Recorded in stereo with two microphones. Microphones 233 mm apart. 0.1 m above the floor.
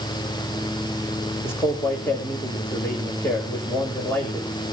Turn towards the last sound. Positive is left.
turn(degrees=10)  # may be behind; listen again after turning